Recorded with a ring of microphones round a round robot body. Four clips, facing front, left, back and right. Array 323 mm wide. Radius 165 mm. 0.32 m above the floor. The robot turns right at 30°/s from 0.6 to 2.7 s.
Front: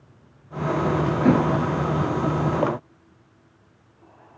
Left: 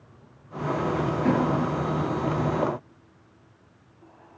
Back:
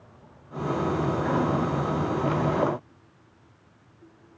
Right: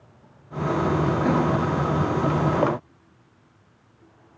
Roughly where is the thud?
Ahead.